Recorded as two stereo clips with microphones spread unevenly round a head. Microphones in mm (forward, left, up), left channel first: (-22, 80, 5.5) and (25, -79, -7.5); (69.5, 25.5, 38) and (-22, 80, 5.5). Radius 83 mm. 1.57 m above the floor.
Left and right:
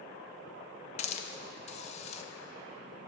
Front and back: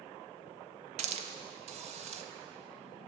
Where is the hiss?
135° left, 0.6 m.